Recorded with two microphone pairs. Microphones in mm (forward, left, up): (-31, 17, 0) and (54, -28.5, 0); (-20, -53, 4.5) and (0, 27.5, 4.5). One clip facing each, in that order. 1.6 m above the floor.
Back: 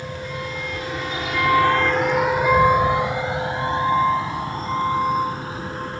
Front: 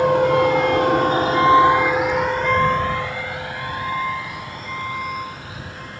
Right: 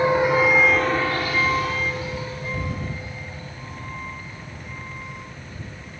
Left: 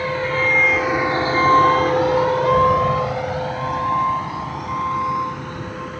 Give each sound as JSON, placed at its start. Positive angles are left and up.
{"t": 0.0, "sound": "a vehicle", "azimuth_deg": -35}